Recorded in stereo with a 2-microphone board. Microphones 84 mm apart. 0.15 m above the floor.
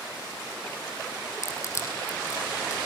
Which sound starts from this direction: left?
Crushing, at 1.4 s.